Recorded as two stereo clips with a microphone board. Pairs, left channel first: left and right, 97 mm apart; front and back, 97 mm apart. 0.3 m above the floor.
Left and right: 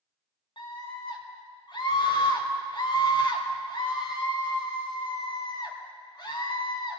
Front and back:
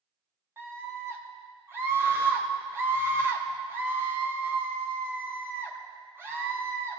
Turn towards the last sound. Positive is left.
turn(degrees=120)